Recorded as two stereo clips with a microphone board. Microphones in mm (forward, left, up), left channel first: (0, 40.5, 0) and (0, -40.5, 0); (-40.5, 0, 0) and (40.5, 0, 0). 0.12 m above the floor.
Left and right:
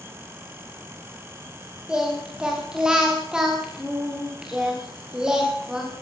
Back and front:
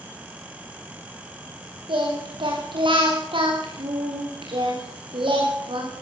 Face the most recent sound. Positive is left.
turn(degrees=-10)